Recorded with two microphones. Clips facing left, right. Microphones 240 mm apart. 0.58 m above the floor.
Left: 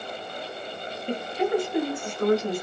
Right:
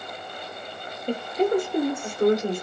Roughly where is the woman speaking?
Right.